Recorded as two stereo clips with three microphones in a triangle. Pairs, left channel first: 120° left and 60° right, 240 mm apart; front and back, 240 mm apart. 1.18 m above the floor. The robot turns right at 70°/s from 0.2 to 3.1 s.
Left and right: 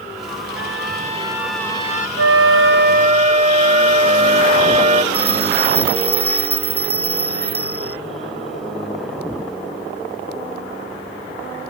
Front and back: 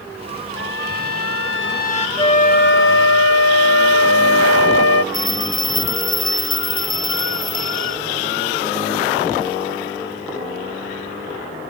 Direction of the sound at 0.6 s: 35° right.